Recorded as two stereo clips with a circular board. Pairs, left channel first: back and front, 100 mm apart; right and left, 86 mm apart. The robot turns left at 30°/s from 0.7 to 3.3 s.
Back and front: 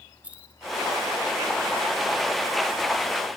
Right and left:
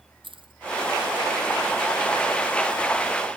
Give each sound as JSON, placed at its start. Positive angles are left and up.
{"t": 0.2, "sound": "keys jangling", "azimuth_deg": 75}